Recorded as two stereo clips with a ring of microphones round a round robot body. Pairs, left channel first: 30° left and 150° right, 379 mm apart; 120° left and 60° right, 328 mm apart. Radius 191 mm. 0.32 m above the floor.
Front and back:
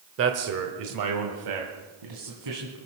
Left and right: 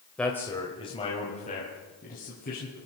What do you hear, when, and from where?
0.2 s a man speaking: 155° right, 1.1 m; by 2.8 s 175° right, 3 m